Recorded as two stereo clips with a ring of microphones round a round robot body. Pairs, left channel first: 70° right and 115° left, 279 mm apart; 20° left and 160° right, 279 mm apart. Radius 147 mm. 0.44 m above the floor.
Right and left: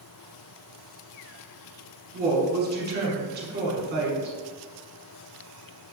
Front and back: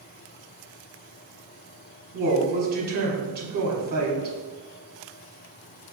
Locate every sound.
2.1 s a woman speaking: 155° left, 1.1 m